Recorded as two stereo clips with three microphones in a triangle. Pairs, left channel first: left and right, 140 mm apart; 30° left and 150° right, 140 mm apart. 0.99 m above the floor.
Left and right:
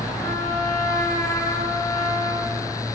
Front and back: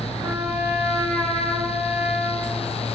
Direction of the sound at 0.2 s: 155° left.